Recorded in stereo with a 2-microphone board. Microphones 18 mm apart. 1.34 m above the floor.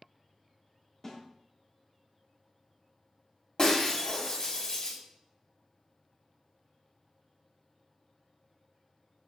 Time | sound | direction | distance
1.0 | a snare drum | 10° left (ahead or behind) | 3.5 m
3.6 | breaking glass | 35° left (ahead or behind) | 3 m